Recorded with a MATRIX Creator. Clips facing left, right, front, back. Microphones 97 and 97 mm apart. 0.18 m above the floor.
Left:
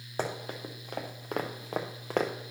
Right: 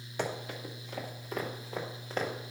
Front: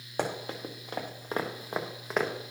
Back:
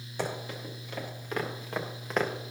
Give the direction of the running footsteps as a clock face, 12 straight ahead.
11 o'clock.